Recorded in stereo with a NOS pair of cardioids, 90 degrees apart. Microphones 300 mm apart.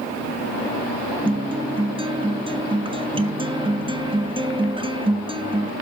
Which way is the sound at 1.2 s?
15° right.